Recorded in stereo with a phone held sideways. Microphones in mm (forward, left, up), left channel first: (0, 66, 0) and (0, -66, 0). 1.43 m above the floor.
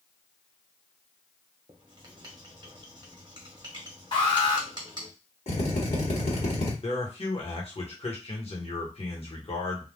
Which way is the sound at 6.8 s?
50° left (ahead or behind).